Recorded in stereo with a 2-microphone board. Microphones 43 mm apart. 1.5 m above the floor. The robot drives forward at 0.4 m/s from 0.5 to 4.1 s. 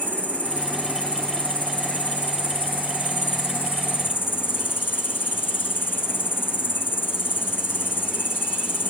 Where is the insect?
40° left (ahead or behind), 3.5 m; by 8.9 s 55° left (ahead or behind), 2.5 m.